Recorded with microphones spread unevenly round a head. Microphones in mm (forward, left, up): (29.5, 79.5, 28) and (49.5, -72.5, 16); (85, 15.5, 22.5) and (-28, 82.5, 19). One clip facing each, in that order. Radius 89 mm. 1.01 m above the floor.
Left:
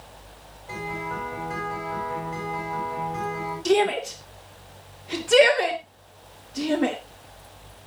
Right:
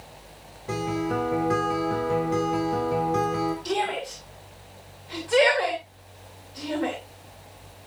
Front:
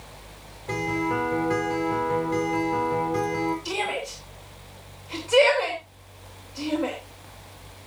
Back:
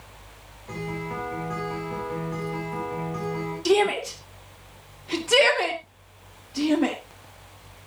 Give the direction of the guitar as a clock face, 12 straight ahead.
3 o'clock.